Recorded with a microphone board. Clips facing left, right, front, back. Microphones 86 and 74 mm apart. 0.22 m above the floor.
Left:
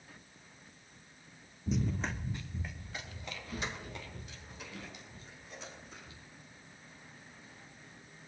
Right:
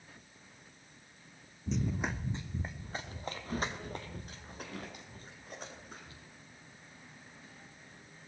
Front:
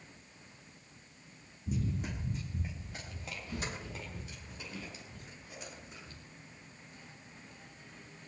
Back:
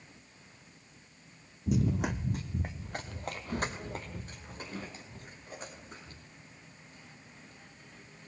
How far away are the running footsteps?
About 0.7 m.